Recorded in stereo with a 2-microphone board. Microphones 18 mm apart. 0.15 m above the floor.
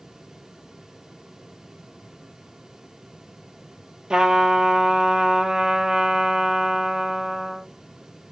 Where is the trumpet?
55° right (ahead or behind), 0.6 m.